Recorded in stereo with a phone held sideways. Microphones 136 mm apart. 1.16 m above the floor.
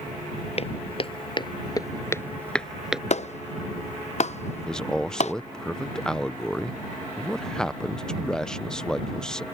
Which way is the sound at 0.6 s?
50° left (ahead or behind).